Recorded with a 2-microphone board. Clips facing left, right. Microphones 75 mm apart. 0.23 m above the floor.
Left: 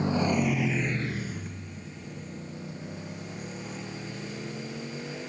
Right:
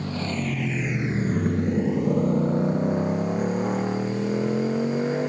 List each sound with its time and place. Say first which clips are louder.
0.0 s a motorcycle: left 3 dB; 20° left (ahead or behind); by 5.3 s 50° right (ahead or behind)